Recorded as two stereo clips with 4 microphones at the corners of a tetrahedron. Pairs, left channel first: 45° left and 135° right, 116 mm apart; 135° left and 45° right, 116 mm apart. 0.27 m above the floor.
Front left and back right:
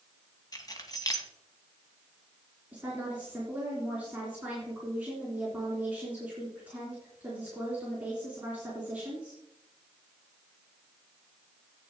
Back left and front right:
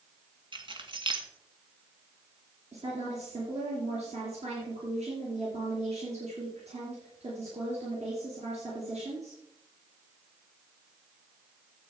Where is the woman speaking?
55° right, 3.5 m.